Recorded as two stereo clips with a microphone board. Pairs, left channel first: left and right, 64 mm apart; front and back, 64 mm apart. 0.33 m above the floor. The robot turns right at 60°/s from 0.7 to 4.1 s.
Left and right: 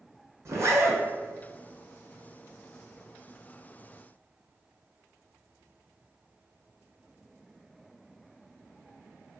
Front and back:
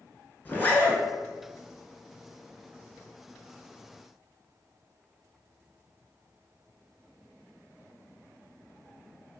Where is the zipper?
60° right, 0.7 m; by 1.0 s 40° right, 0.7 m.